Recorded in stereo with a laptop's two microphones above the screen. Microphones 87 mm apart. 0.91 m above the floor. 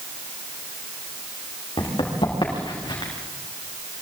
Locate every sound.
1.8 s running footsteps: 70° left (ahead or behind), 5.5 m; by 3.1 s 60° left (ahead or behind), 4.5 m